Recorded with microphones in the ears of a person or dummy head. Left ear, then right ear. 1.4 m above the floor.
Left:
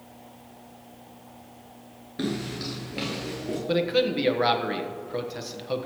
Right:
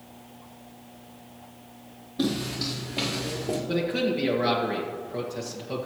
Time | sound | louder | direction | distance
2.2 | footsteps | right 3 dB | 15° left (ahead or behind) | 1.4 m
3.7 | a man speaking | left 5 dB | 40° left (ahead or behind) | 1.3 m